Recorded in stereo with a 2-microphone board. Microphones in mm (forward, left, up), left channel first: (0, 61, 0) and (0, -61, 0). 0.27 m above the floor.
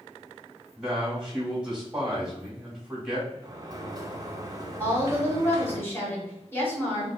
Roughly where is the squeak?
No squeak in this recording.